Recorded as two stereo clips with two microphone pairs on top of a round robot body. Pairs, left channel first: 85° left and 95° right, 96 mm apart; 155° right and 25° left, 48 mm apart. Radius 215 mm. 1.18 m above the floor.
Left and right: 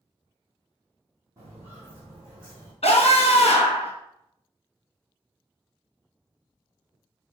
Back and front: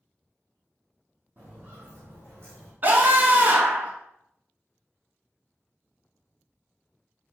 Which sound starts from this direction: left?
A scream, at 2.8 s.